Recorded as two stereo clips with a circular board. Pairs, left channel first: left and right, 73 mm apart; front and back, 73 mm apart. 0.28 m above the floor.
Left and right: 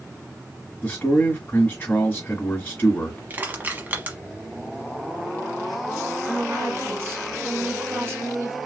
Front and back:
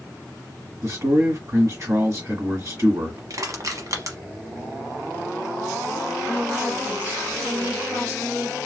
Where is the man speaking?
145° left, 1.9 m.